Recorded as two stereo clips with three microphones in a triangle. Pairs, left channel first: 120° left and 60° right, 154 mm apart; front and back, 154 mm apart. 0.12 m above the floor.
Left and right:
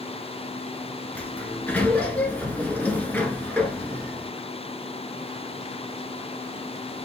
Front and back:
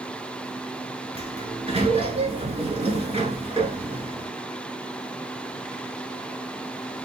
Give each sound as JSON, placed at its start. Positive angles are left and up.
{"t": 1.1, "sound": "a sliding door", "azimuth_deg": -165, "distance_m": 0.9}